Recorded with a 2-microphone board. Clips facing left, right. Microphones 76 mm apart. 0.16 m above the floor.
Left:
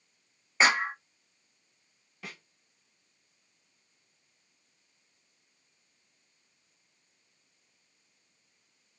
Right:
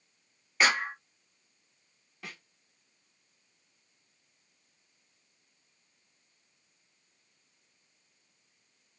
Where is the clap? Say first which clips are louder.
Left 2 dB; 20° left (ahead or behind), 0.8 m.